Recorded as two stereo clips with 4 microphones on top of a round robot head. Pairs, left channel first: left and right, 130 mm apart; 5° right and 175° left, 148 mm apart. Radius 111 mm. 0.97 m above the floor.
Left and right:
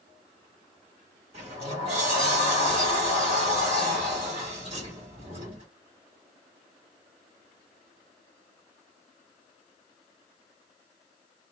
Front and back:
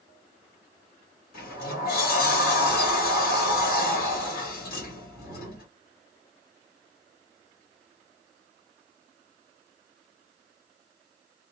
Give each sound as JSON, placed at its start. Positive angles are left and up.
{"t": 1.3, "sound": "a sliding door", "azimuth_deg": -35, "distance_m": 1.1}